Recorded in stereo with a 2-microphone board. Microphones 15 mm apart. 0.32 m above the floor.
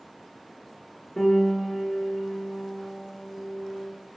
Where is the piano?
30° left (ahead or behind), 0.6 m.